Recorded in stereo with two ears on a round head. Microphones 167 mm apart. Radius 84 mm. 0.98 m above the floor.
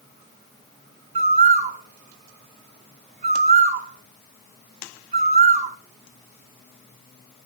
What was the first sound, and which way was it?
A bird, 35° right (ahead or behind).